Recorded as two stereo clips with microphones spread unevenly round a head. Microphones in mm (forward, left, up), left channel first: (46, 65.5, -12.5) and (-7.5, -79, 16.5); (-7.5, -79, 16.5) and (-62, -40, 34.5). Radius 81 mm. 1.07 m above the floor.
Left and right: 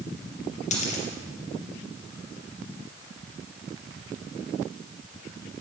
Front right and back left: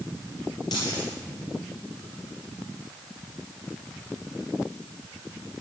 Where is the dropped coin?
25° left, 4 m.